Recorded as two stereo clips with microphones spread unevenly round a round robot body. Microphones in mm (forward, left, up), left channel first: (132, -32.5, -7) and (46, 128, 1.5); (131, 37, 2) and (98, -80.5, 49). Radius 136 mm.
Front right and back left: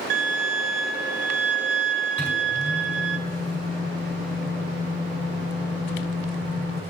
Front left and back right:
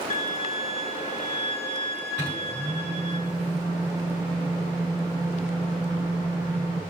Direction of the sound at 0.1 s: 110° left.